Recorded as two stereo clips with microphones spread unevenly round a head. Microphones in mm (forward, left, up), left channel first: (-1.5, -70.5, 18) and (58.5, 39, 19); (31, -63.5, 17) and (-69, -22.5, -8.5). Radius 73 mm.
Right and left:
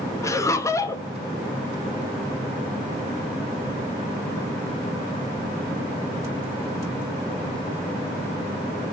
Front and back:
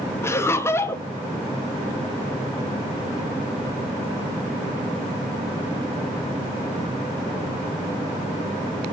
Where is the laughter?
90° right, 0.6 m.